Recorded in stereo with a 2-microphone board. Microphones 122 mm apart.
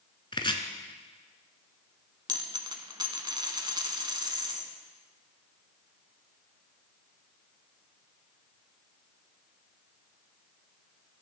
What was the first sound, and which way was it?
Chopping, 40° left (ahead or behind).